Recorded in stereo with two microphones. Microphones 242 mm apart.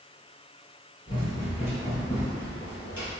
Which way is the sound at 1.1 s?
20° left (ahead or behind).